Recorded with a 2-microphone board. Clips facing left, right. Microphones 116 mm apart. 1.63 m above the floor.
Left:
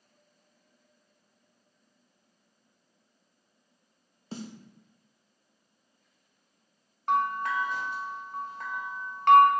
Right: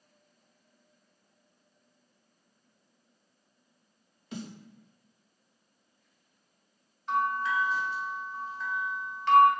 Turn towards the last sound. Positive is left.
turn(degrees=55)  # may be behind; listen again after turning